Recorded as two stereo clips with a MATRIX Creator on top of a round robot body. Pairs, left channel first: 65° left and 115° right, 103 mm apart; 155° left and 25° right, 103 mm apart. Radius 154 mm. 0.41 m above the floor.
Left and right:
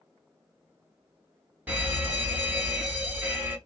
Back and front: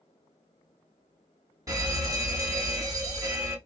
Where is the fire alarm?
45° right, 2.5 m.